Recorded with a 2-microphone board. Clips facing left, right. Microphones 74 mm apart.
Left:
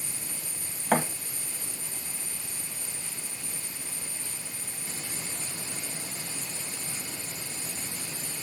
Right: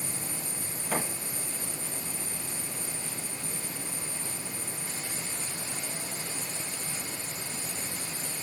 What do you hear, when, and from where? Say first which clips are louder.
0.9 s a thud: left 7 dB; 70° left (ahead or behind), 1.0 m